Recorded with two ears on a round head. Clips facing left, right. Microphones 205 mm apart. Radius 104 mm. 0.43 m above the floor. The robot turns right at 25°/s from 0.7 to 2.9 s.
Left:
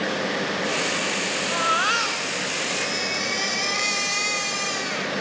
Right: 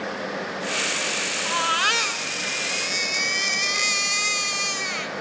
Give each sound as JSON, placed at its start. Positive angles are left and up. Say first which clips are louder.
{"t": 1.4, "sound": "a baby crying", "louder": "left 3 dB", "azimuth_deg": -70, "distance_m": 1.8}